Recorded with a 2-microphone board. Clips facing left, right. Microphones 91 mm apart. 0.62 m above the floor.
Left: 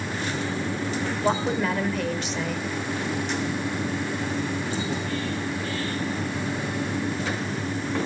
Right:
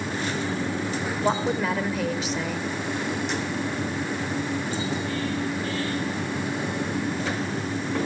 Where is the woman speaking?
Centre (ahead or behind), 2.5 m.